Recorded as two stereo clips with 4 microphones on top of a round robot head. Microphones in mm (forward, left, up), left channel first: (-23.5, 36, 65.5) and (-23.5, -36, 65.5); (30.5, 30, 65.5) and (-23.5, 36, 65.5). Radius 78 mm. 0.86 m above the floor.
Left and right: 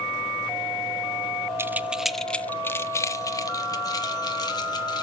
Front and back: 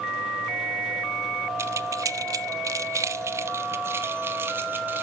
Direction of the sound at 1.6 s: 150° right.